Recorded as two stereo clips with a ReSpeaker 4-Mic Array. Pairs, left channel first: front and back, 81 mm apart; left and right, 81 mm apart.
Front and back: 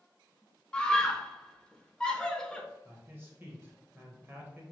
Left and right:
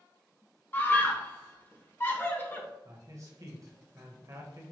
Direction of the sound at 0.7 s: 65° left.